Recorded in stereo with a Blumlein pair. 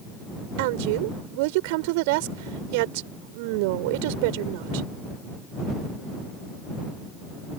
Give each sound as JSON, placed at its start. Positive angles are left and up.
{"t": 0.6, "sound": "a woman speaking", "azimuth_deg": -50}